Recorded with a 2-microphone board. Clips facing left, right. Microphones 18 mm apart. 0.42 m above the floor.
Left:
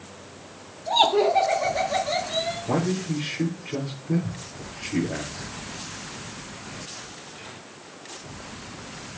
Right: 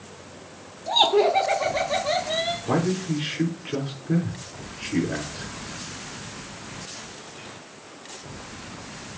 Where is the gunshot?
I don't hear a gunshot.